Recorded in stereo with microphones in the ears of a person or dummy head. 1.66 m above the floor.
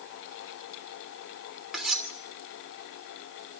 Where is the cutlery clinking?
5° right (ahead or behind), 2.5 m.